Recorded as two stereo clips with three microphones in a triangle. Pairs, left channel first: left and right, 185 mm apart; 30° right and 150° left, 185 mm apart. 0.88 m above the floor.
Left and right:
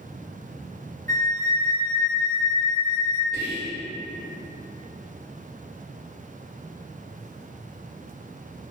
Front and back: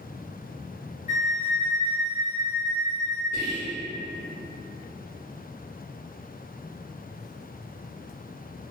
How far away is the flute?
About 0.6 m.